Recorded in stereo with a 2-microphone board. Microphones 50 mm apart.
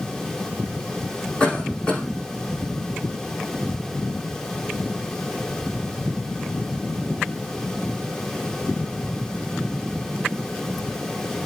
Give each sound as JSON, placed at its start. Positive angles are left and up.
{"t": 1.4, "sound": "a cough", "side_deg": 20, "distance_m": 7.5}